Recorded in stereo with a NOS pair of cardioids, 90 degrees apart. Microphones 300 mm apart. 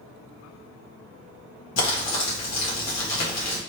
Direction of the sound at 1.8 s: 65° left.